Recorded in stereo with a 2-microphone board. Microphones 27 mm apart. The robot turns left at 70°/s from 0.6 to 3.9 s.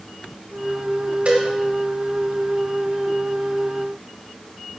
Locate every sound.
1.2 s a cowbell: 45° right (ahead or behind), 1.6 m; by 1.4 s 60° right (ahead or behind), 1.6 m